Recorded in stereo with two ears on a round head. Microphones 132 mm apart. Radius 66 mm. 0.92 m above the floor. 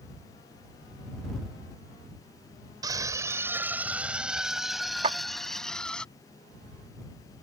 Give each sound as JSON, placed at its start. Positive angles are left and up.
{"t": 2.8, "sound": "a scream", "side_deg": -30}
{"t": 5.0, "sound": "a clap", "side_deg": -40}